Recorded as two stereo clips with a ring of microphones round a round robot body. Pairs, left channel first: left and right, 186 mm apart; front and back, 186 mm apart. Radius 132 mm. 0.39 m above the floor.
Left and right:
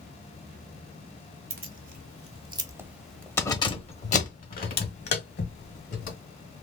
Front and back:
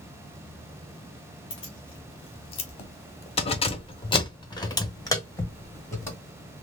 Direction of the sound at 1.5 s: 70° right.